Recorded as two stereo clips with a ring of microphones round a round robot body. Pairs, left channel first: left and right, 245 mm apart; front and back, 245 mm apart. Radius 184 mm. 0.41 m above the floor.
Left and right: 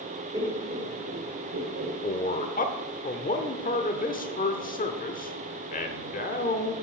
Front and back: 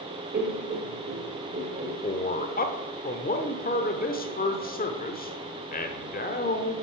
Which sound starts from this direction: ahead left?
A man speaking, at 2.0 s.